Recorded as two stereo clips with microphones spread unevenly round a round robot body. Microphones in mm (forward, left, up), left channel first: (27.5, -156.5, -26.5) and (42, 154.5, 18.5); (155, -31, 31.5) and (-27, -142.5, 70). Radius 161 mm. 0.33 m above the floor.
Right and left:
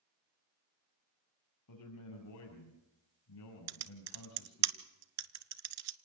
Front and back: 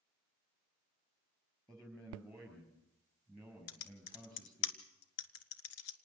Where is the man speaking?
60° right, 6 m.